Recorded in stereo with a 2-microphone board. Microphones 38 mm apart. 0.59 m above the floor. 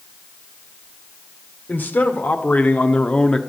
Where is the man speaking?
55° left (ahead or behind), 2 m; by 3.4 s 20° left (ahead or behind), 1.1 m.